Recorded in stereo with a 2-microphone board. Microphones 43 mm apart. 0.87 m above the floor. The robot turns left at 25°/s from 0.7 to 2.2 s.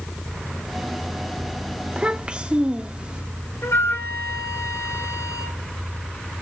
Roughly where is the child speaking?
Right.